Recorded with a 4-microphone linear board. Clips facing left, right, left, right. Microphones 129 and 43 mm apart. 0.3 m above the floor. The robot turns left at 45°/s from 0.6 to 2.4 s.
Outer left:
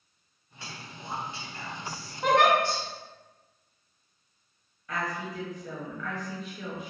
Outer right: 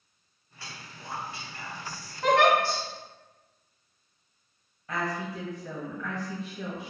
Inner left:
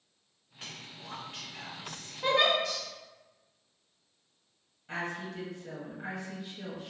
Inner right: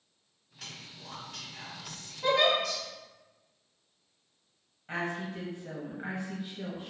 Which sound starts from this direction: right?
A woman speaking, at 4.9 s.